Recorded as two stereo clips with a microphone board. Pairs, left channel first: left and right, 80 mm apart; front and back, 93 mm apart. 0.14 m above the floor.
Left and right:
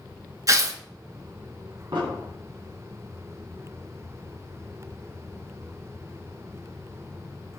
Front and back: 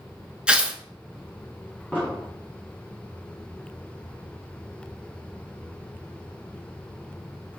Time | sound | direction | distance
0.5 | tearing paper | 105° right | 0.6 m
1.9 | an explosion | 70° right | 1.6 m